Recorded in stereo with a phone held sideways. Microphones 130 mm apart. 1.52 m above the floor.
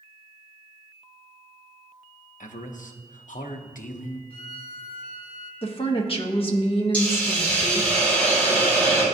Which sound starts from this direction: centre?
A hiss, at 6.9 s.